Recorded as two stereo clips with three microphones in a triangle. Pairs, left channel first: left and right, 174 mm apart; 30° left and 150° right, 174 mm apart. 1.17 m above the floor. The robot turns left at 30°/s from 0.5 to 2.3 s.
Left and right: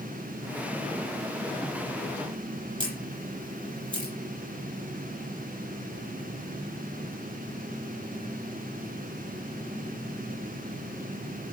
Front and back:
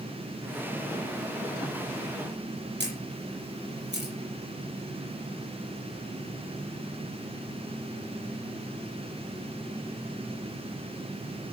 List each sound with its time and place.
2.8 s a camera shutter: 150° right, 7 m